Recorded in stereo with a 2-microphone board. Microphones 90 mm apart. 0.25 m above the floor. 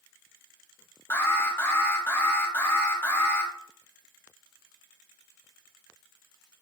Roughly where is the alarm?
Left.